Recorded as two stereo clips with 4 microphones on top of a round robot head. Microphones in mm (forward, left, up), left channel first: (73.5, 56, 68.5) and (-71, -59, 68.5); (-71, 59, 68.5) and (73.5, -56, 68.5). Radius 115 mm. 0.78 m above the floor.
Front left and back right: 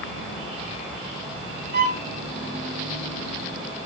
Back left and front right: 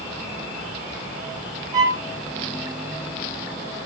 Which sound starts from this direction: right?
A violin, at 1.7 s.